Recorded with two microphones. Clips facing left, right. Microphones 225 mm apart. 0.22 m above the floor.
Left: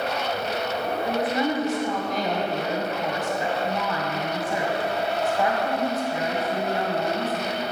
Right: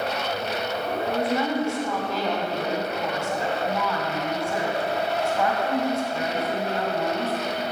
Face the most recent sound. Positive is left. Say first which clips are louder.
# even
turn(degrees=20)  # may be behind; listen again after turning